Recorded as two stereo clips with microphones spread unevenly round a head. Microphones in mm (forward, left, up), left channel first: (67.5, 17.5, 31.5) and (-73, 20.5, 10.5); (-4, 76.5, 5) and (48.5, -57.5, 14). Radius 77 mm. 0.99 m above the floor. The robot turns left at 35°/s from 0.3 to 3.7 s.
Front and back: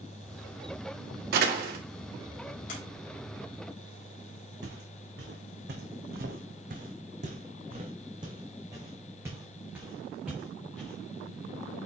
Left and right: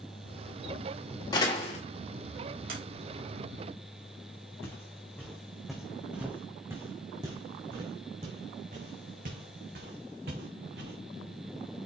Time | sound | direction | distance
1.3 | a door slam | straight behind | 2 m
2.7 | a sliding door | 40° right | 3.5 m
4.6 | footsteps | 170° right | 3 m